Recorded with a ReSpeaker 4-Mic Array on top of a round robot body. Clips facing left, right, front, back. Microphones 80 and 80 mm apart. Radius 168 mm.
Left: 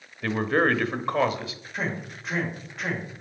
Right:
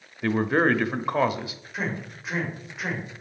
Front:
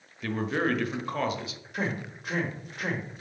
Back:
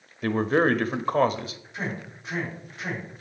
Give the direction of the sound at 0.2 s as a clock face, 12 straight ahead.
5 o'clock.